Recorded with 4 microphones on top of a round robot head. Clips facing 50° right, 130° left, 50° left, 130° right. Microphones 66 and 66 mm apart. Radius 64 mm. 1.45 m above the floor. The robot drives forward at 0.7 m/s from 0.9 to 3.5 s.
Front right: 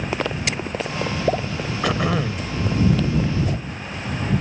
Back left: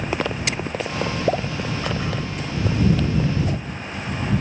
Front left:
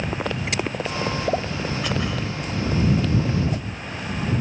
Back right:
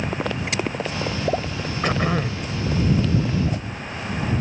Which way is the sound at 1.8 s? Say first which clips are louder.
Front right 4 dB, back right 4 dB; 75° right.